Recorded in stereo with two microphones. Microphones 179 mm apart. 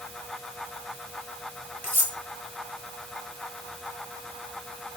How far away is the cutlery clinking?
About 2 m.